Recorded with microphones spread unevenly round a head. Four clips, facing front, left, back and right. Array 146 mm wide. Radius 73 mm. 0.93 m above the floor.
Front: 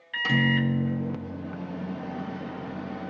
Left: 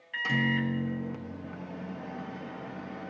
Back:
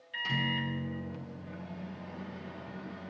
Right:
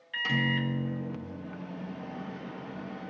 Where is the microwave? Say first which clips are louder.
Left 1 dB, front 10 dB; 5° left, 0.6 m.